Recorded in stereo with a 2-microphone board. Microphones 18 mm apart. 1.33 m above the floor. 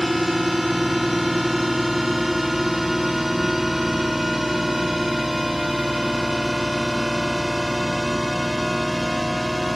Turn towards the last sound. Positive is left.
turn(degrees=-20)  # may be behind; listen again after turning